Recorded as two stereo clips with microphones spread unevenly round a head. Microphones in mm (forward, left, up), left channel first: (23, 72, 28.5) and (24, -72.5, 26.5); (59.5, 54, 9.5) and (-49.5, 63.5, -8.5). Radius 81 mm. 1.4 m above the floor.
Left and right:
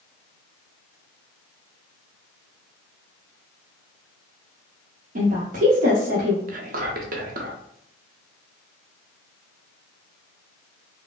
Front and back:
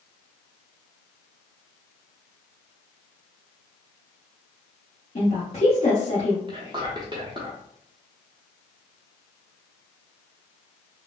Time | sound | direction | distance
5.2 | a woman speaking | 60° right | 0.8 m
6.5 | whispering | 125° right | 0.8 m